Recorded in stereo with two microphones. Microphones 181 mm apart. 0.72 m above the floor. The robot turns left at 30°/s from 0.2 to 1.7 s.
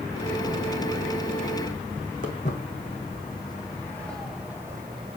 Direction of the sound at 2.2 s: 45° left (ahead or behind).